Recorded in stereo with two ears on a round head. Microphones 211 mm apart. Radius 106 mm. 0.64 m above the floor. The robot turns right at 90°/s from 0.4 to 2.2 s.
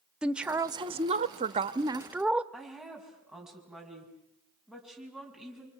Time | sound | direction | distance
0.2 | a woman speaking | 5° right (ahead or behind) | 0.7 m
2.5 | a woman speaking | centre (ahead or behind) | 5.5 m